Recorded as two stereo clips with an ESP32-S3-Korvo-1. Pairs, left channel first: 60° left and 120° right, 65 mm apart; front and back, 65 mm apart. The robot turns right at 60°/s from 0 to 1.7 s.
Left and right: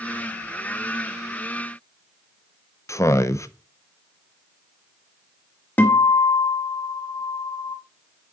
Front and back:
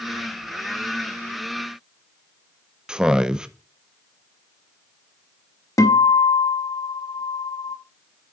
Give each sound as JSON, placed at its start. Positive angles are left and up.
{"t": 2.9, "sound": "a man speaking", "azimuth_deg": 100, "distance_m": 0.5}
{"t": 5.8, "sound": "a guitar", "azimuth_deg": 5, "distance_m": 0.9}